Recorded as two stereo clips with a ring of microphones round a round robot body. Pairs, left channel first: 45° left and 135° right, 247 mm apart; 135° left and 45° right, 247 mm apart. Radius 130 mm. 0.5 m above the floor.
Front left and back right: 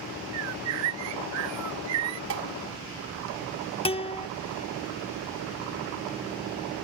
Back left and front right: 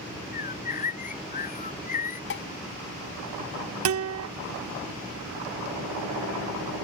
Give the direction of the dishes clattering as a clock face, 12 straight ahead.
6 o'clock.